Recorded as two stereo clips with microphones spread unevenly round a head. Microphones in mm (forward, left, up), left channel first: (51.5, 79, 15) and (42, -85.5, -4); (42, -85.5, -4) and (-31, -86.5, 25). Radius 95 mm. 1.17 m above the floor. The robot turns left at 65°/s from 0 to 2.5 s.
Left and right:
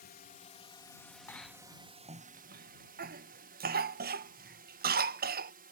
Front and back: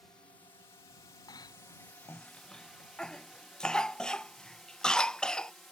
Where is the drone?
75° left; by 5.7 s 75° right.